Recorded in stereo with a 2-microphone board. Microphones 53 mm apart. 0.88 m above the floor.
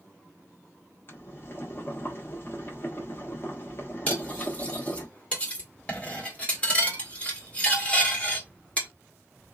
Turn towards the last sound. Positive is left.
turn(degrees=20)  # may be behind; listen again after turning